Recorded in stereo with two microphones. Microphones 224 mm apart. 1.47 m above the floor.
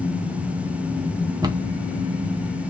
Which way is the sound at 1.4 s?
20° right (ahead or behind).